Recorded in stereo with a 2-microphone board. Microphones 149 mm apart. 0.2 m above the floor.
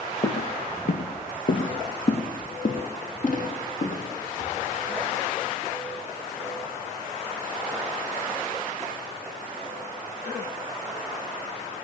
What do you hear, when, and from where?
0.2 s footsteps: 80° left, 1.3 m; by 4.6 s 55° left (ahead or behind), 4 m